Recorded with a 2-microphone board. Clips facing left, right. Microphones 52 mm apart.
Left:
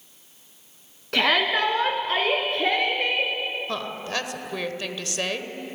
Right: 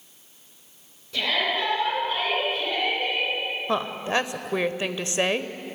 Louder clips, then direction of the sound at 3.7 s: Right 4 dB; 20° right (ahead or behind).